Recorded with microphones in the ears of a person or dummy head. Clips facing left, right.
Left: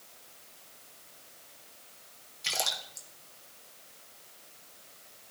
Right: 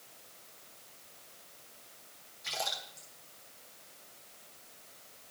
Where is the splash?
45° left (ahead or behind), 1.0 m.